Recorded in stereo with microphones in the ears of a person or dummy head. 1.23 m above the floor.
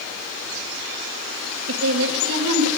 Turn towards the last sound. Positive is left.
turn(degrees=-75)  # may be behind; listen again after turning